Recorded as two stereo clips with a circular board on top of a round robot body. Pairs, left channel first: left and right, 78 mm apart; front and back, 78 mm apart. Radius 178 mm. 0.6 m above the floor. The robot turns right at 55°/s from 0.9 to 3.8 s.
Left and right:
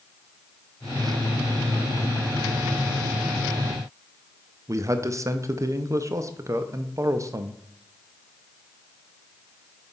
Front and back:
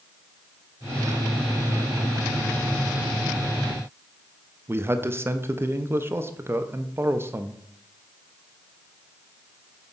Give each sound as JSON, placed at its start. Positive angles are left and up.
{"t": 4.7, "sound": "a man speaking", "azimuth_deg": -130, "distance_m": 0.8}